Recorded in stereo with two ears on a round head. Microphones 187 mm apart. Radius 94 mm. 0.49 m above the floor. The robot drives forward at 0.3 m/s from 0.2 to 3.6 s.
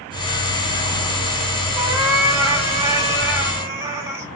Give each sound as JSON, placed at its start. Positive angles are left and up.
{"t": 1.8, "sound": "a cat meowing", "side_deg": -20, "distance_m": 1.1}